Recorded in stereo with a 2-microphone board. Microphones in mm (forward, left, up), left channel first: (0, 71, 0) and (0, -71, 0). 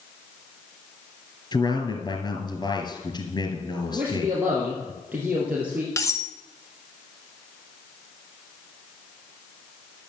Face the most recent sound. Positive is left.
turn(degrees=25)  # may be behind; listen again after turning